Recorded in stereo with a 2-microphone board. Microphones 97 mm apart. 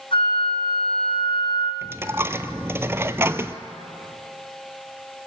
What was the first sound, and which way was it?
A flute, 65° left (ahead or behind).